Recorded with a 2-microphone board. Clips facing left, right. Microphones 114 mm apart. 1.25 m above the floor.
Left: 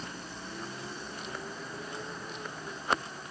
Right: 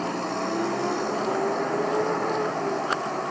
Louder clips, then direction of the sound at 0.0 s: Right 16 dB; 75° right (ahead or behind).